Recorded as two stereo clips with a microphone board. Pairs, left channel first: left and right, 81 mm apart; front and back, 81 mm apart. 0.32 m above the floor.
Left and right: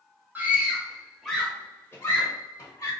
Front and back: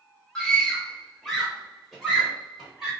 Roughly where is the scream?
Ahead right.